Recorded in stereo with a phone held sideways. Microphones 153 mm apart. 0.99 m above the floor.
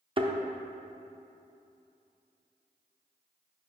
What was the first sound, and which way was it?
A thud, 35° right (ahead or behind).